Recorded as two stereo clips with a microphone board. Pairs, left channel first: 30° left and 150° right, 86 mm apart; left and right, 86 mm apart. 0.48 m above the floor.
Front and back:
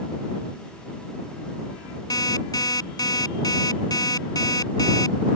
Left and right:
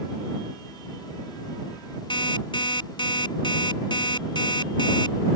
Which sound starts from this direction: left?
An alarm clock, at 2.1 s.